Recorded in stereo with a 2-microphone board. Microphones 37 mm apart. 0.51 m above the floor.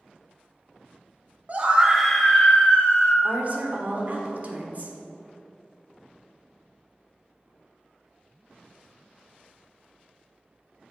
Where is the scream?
40° right (ahead or behind), 1.0 m; by 3.1 s 55° left (ahead or behind), 1.7 m.